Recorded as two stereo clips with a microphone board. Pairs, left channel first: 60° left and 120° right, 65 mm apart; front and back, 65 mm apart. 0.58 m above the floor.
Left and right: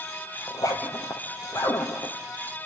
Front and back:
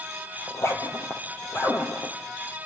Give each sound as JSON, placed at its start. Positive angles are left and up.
{"t": 0.5, "sound": "a zipper", "azimuth_deg": 40, "distance_m": 3.0}